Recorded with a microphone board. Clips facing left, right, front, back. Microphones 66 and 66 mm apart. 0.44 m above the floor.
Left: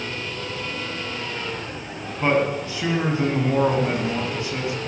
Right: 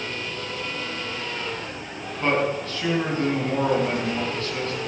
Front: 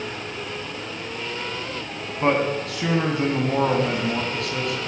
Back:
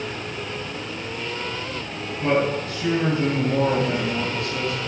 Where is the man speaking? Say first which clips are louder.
Left 2 dB, even; 15° left, 4 m.